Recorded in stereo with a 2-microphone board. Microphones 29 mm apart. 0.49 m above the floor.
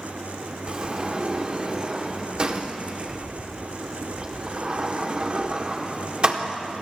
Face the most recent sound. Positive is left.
turn(degrees=-35)  # may be behind; listen again after turning